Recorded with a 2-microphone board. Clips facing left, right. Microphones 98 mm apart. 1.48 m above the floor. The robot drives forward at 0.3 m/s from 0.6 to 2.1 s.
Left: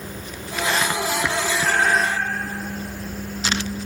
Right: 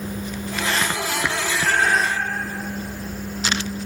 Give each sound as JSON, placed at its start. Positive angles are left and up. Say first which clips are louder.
{"t": 1.6, "sound": "a cat meowing", "louder": "right 1 dB", "side_deg": 65, "distance_m": 6.0}